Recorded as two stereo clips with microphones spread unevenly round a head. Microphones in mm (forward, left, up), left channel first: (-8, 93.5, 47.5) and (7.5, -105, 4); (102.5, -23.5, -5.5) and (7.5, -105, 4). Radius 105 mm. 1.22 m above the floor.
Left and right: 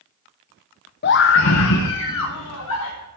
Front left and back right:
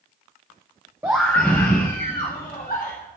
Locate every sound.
1.0 s a scream: 140° left, 0.8 m; by 3.1 s 105° left, 3 m